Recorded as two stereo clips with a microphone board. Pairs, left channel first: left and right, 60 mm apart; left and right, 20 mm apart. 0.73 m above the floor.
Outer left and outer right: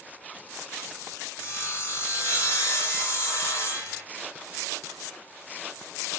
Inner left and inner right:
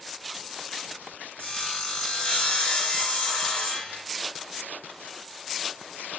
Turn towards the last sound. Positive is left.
turn(degrees=45)  # may be behind; listen again after turning